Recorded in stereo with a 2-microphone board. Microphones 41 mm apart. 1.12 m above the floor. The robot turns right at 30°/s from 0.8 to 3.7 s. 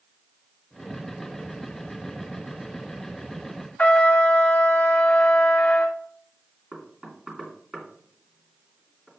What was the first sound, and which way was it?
A trumpet, 30° left (ahead or behind).